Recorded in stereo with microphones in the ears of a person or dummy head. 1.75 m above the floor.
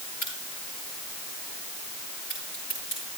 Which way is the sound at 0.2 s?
45° left (ahead or behind).